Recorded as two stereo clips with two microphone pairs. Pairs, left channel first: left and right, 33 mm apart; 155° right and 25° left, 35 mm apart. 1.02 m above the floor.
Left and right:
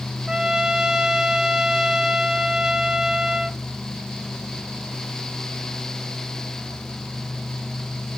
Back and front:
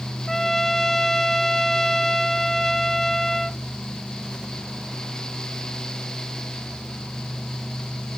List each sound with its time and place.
0.3 s a trumpet: 90° right